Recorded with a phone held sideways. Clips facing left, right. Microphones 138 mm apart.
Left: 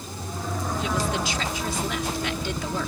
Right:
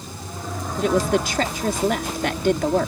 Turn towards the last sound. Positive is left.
turn(degrees=-55)  # may be behind; listen again after turning